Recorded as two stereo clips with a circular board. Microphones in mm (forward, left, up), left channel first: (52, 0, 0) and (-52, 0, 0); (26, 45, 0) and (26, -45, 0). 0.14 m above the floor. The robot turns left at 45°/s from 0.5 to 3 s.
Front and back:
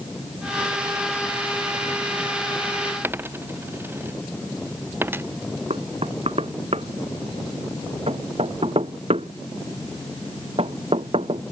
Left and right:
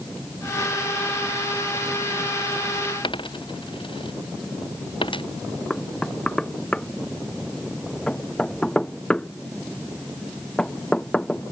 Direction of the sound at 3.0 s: 110° left.